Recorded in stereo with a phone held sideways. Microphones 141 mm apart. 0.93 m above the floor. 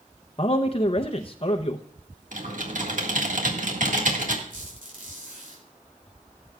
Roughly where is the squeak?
Right.